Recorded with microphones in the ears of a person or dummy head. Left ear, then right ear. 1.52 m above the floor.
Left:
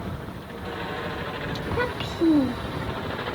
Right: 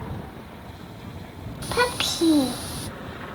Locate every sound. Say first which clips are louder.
1.6 s a child speaking: right 7 dB; 65° right (ahead or behind)